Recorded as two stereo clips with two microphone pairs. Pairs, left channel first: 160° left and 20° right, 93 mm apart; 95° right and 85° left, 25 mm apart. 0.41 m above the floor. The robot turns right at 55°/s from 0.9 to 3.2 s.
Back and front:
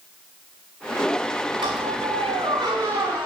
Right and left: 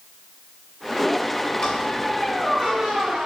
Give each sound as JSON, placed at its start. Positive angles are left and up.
{"t": 1.6, "sound": "a squeak", "azimuth_deg": -40, "distance_m": 9.5}